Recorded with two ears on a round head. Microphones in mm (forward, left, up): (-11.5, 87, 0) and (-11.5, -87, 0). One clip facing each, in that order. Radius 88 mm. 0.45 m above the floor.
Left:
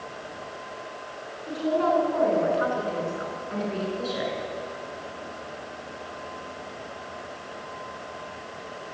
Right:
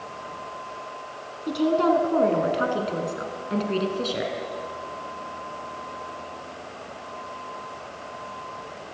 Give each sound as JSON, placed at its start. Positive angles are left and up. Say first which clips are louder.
{"t": 1.5, "sound": "a woman speaking", "louder": "right 3 dB", "side_deg": -55, "distance_m": 4.5}